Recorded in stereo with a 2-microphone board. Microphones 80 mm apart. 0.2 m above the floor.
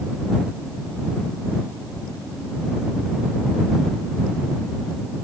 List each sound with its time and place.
Only background noise.